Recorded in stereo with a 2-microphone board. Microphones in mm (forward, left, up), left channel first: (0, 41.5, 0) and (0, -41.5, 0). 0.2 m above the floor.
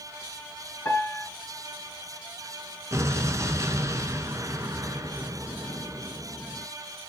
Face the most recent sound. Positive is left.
turn(degrees=-40)  # may be behind; listen again after turning